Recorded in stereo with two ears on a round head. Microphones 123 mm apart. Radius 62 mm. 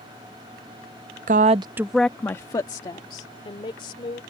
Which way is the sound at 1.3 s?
60° right (ahead or behind).